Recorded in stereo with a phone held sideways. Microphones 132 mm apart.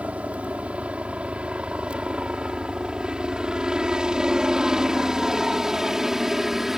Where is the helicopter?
10° right (ahead or behind); by 6.8 s 5° right (ahead or behind).